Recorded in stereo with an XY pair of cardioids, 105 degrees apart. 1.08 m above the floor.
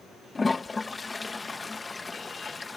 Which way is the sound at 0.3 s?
25° left.